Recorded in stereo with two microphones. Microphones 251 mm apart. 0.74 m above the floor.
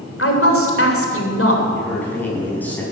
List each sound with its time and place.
0.2 s a woman speaking: 55° left (ahead or behind), 3 m
1.7 s a man speaking: 5° left (ahead or behind), 6 m